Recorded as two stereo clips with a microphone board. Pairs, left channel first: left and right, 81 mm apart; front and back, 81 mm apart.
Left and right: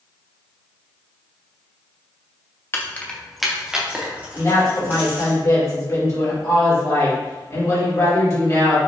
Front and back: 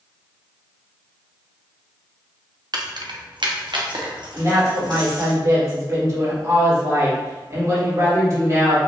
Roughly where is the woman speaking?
Behind left.